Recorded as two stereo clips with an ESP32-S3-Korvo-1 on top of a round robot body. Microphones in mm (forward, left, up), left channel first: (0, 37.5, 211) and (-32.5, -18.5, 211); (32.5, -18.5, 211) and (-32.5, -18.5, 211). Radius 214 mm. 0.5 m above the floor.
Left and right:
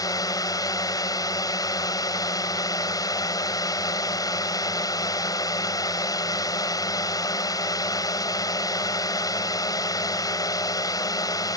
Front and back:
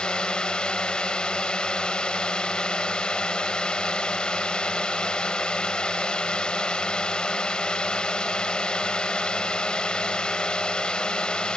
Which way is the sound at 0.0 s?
75° left.